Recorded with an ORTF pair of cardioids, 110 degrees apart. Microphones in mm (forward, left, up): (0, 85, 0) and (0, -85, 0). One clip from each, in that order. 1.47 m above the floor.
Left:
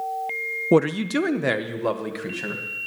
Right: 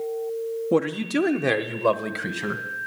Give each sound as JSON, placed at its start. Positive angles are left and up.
{"t": 0.7, "sound": "a man speaking", "azimuth_deg": 25, "distance_m": 0.7}